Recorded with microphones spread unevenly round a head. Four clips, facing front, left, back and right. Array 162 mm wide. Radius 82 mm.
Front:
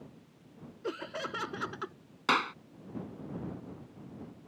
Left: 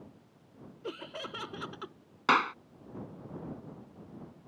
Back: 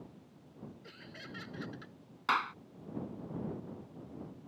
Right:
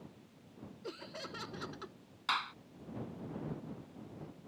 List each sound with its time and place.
0.8 s laughter: 15° left
2.3 s a clap: 60° left